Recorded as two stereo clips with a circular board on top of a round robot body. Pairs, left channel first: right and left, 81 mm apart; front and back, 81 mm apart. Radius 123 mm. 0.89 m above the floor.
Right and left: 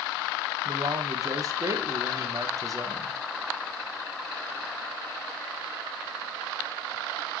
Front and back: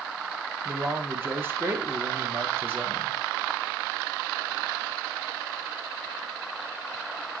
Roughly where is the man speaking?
Behind left.